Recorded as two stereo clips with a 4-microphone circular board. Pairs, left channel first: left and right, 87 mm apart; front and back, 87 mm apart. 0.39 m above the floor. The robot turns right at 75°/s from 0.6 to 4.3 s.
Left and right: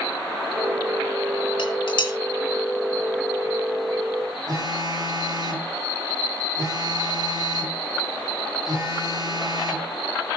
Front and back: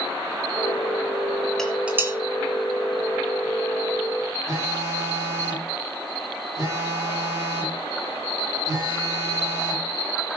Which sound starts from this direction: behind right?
A phone buzzing, at 4.5 s.